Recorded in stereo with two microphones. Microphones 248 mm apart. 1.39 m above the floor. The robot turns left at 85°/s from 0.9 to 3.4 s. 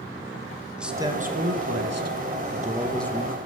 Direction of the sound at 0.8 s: 5° right.